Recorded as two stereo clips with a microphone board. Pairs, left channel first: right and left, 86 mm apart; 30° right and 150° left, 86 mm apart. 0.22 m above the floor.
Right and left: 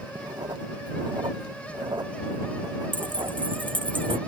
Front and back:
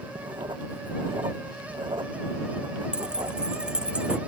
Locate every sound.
0.1 s writing: 125° left
2.9 s keys jangling: 70° left